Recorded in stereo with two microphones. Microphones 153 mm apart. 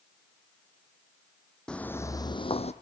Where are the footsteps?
5° left (ahead or behind), 1.4 m; by 2.7 s 45° left (ahead or behind), 1.3 m.